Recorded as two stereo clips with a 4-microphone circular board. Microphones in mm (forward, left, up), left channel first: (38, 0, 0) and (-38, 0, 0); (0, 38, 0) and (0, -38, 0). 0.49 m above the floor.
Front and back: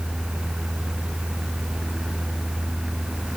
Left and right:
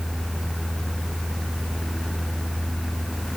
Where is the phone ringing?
I don't hear a phone ringing.